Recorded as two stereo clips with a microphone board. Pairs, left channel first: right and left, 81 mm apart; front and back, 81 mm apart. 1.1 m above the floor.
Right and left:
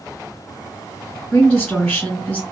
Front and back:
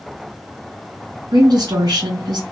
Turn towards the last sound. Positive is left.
turn(degrees=-165)